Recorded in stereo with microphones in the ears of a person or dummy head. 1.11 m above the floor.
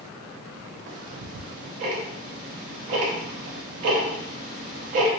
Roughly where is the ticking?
Right.